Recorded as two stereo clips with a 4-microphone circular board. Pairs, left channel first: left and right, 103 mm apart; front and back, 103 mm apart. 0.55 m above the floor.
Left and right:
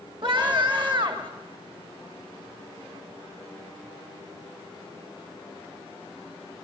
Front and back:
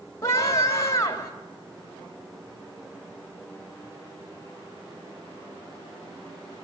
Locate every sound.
0.2 s a scream: 60° right, 3 m